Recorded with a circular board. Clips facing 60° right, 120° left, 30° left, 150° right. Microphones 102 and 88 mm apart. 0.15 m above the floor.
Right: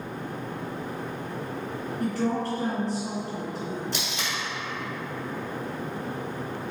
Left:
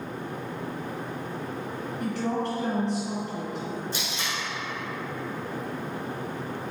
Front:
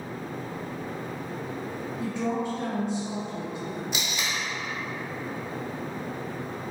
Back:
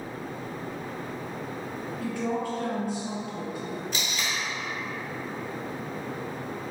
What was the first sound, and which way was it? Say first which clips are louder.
A woman speaking: right 2 dB, front 1 dB; 30° right.